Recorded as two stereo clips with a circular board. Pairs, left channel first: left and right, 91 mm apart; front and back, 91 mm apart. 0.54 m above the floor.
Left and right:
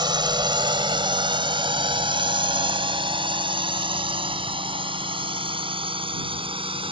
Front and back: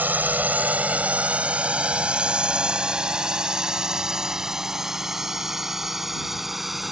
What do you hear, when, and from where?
0.0 s a drone: 115° right; by 6.9 s 95° right